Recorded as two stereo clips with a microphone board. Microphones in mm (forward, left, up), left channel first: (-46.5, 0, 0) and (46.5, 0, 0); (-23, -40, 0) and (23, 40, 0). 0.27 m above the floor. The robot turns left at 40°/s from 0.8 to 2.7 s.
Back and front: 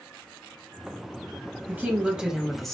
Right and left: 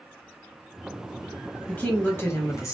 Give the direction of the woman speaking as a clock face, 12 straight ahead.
2 o'clock.